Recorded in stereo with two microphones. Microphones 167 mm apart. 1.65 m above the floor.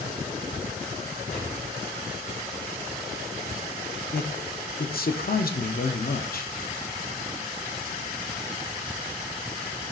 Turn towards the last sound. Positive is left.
turn(degrees=60)  # may be behind; listen again after turning